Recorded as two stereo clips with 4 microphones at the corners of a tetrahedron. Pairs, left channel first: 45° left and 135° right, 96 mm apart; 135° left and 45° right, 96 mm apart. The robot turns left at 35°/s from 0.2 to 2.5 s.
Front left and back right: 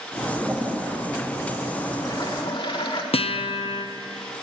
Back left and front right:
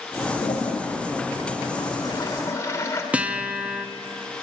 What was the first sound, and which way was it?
A toilet flushing, 150° left.